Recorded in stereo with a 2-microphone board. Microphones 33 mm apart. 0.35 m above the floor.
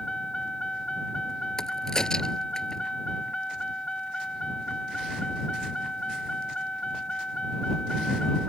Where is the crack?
20° left (ahead or behind).